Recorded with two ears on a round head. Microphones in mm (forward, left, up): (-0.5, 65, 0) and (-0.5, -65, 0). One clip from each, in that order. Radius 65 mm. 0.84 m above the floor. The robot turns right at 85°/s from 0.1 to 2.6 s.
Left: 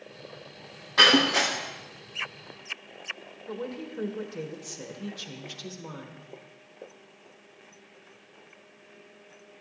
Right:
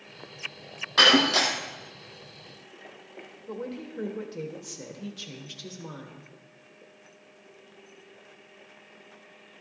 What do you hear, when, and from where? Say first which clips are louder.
1.0 s breaking glass: even; 155° right, 2.5 m; by 1.5 s 105° right, 2.5 m
3.5 s a woman speaking: left 1 dB; 5° left (ahead or behind), 1.1 m